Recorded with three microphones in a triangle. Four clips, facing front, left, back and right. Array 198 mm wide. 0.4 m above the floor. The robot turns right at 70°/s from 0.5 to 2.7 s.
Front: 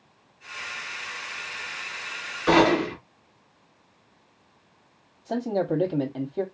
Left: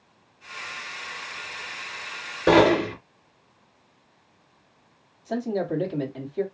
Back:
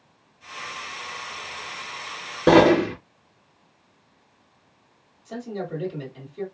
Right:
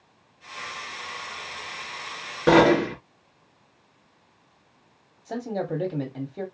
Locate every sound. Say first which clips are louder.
2.5 s a gunshot: even, back 4 dB; straight behind, 3 m; by 3.0 s 165° right, 3 m
5.2 s a man speaking: left 3 dB, front 6 dB; straight ahead, 2.5 m